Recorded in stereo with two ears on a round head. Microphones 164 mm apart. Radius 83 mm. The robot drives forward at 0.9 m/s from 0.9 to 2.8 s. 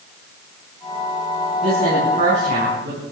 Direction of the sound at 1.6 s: 35° right (ahead or behind).